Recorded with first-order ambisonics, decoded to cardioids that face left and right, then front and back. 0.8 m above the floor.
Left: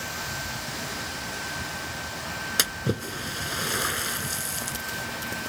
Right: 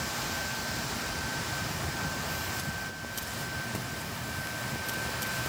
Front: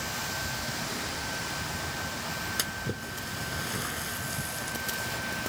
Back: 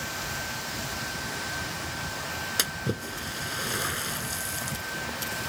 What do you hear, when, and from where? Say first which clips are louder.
2.6 s a splash: left 9 dB, back 3 dB; 110° left